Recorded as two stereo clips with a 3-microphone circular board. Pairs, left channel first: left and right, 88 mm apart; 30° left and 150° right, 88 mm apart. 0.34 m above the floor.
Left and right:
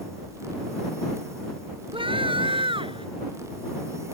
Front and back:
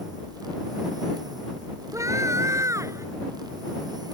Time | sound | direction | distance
1.9 | a scream | 95° right | ?